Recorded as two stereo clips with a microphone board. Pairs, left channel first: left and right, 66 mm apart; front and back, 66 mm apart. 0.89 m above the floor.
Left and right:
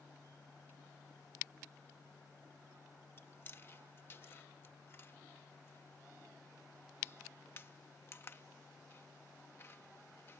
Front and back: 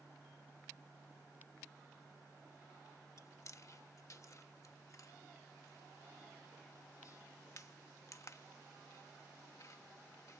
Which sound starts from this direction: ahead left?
Chewing, at 3.2 s.